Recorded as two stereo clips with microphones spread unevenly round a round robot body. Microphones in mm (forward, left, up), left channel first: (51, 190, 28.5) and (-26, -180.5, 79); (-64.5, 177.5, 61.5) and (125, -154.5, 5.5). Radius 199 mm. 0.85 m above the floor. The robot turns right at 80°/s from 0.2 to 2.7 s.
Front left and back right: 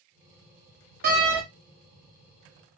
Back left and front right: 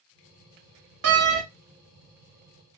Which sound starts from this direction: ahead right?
A door slam, at 1.0 s.